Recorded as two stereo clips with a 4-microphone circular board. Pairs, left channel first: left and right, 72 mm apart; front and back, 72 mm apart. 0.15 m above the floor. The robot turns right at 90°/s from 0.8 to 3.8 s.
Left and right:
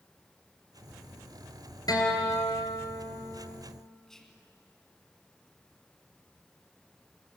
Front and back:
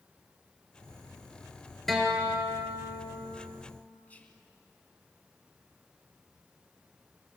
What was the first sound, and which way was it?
A guitar, 90° left.